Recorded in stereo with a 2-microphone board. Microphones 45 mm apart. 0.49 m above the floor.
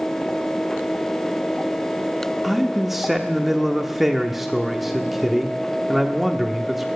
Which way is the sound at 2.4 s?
5° right (ahead or behind).